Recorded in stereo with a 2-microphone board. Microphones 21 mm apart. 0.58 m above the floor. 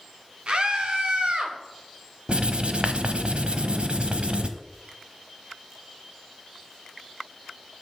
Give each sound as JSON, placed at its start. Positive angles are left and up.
{"t": 0.5, "sound": "a scream", "side_deg": -50, "distance_m": 1.8}
{"t": 2.3, "sound": "writing", "side_deg": -60, "distance_m": 1.0}